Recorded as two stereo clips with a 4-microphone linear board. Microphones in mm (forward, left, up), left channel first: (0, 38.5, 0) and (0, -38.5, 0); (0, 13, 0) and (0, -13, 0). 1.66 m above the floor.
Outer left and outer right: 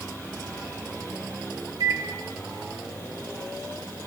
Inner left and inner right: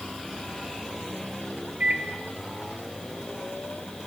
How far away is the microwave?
About 0.5 m.